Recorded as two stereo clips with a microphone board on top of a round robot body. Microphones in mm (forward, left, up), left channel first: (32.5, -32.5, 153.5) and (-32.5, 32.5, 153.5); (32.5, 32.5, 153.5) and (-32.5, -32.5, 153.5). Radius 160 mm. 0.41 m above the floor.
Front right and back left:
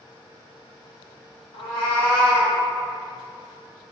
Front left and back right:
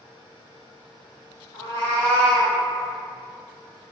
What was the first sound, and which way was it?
A cat meowing, 10° right.